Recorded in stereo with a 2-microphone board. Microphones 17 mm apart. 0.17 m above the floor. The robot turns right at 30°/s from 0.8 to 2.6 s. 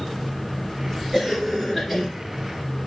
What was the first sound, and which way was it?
A cough, 15° right (ahead or behind).